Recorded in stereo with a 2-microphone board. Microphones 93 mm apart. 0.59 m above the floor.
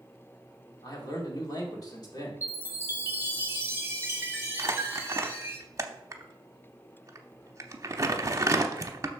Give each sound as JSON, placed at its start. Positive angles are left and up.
{"t": 0.8, "sound": "a man speaking", "side_deg": 40, "distance_m": 1.8}
{"t": 2.4, "sound": "a chime", "side_deg": -25, "distance_m": 1.2}
{"t": 4.6, "sound": "crumpling", "side_deg": -35, "distance_m": 0.7}